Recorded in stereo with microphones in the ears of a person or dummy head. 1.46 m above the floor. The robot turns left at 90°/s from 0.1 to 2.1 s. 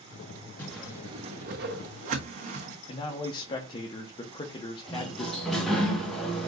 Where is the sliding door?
Centre (ahead or behind), 1.3 m.